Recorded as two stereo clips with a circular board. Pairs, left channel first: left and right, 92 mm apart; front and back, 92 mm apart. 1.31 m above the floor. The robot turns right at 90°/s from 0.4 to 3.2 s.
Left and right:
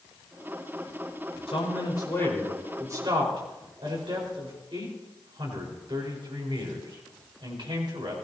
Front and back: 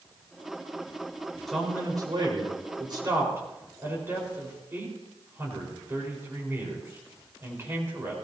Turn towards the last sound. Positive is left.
turn(degrees=-115)